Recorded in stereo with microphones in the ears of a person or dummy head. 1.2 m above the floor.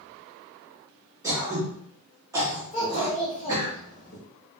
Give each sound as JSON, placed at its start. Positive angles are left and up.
{"t": 1.2, "sound": "throat clearing", "side_deg": -20, "distance_m": 1.3}
{"t": 2.7, "sound": "a child speaking", "side_deg": 35, "distance_m": 1.0}